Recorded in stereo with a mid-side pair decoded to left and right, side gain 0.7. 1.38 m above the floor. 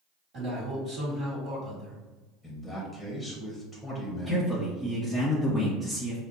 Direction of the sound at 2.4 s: 5° right.